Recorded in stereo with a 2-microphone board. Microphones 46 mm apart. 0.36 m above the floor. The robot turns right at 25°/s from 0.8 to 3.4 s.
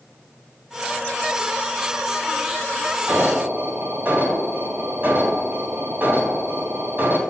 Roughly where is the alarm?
Right.